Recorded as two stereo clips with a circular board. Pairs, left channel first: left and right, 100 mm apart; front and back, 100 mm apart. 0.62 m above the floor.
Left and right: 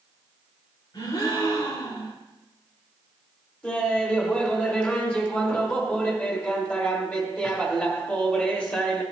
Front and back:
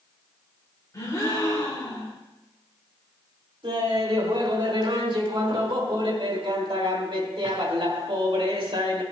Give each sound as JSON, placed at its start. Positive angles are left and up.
{"t": 0.9, "sound": "a gasp", "azimuth_deg": 50, "distance_m": 2.5}
{"t": 3.6, "sound": "laughter", "azimuth_deg": 165, "distance_m": 2.5}